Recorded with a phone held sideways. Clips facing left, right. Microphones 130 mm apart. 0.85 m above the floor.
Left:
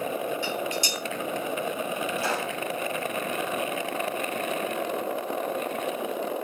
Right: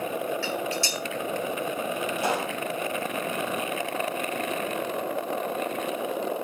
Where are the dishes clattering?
20° left (ahead or behind), 9 m.